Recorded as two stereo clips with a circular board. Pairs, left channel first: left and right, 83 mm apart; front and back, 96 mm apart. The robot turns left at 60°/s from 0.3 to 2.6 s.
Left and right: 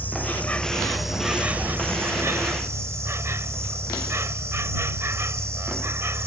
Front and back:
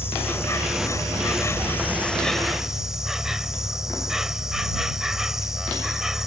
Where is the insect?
40° left; by 6.3 s 95° right.